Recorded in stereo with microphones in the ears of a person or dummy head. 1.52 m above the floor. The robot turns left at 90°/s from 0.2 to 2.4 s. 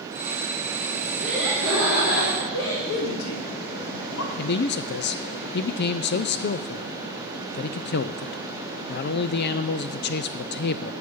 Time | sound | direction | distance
1.2 | laughter | 165° right | 5.5 m
2.8 | a man speaking | 80° left | 3.5 m
4.4 | a man speaking | 50° left (ahead or behind) | 0.5 m